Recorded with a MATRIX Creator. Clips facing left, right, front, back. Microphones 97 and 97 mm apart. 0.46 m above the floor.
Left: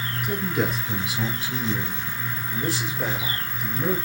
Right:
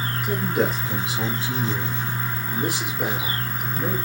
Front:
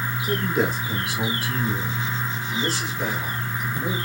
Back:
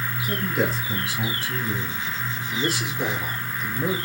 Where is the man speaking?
50° right, 1.9 m; by 4.0 s 175° right, 1.6 m.